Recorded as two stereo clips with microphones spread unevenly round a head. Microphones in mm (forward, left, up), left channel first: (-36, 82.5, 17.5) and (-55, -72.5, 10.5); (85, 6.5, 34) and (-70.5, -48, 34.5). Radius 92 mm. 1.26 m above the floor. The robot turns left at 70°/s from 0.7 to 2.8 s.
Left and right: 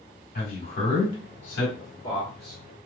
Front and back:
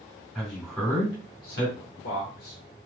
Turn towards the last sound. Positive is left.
turn(degrees=-35)